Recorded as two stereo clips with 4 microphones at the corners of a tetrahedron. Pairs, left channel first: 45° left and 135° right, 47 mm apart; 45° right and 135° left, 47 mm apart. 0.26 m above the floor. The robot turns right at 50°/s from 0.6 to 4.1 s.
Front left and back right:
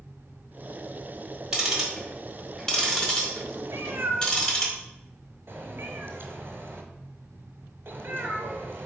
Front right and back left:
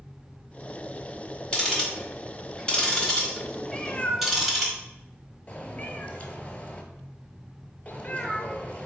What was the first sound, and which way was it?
Ticking, 80° right.